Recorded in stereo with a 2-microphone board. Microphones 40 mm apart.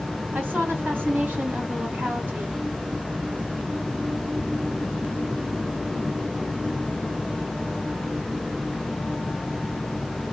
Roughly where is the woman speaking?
Right.